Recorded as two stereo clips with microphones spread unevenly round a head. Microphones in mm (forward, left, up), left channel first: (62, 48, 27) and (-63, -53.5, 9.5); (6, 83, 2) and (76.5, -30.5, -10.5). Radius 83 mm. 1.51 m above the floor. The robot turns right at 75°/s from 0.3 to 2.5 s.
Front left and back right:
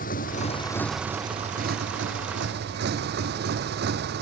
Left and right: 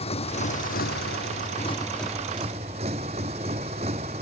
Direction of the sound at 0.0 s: 80° left.